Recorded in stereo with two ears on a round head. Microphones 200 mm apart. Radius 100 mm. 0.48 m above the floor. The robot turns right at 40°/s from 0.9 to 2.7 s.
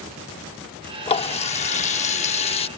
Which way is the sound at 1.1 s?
55° left.